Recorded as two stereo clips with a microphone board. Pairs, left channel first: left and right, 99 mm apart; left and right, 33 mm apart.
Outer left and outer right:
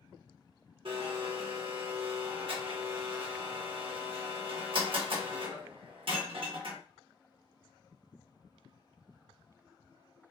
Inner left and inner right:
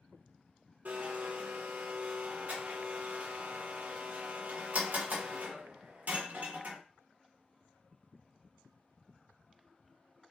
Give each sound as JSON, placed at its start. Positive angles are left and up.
{"t": 0.8, "sound": "a blender", "side_deg": -65, "distance_m": 1.1}